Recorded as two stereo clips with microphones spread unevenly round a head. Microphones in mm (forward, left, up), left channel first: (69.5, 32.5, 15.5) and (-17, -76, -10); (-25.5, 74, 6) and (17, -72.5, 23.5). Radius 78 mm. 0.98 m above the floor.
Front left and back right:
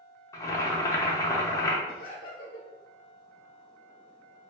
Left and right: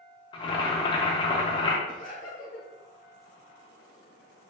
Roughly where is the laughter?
Left.